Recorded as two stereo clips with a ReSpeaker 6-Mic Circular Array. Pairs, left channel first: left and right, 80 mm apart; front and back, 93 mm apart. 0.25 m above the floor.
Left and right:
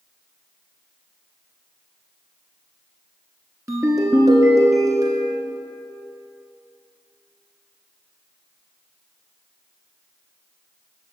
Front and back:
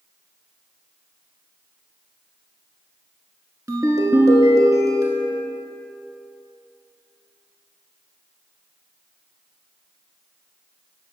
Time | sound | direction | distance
3.7 | a ringtone | 135° right | 1.3 m